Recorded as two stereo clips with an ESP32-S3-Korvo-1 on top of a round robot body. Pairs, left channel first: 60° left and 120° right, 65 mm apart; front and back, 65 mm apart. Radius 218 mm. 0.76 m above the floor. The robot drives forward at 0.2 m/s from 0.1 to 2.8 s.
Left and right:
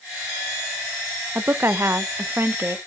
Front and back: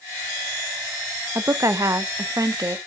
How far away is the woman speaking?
About 0.6 m.